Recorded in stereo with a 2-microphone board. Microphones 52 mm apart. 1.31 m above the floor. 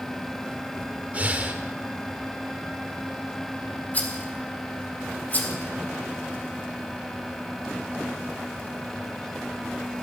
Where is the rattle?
35° left (ahead or behind), 1.7 m.